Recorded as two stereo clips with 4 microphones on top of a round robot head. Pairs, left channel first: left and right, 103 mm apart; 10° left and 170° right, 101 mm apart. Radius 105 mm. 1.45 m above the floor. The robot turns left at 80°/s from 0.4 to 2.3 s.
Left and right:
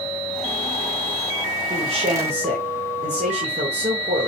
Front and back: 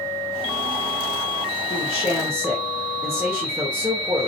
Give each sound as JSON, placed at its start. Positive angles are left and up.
{"t": 1.7, "sound": "a man speaking", "azimuth_deg": -45, "distance_m": 1.0}